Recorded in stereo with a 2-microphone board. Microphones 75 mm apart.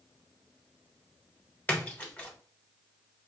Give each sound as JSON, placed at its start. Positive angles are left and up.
{"t": 1.7, "sound": "a splash", "side_deg": 20, "distance_m": 1.6}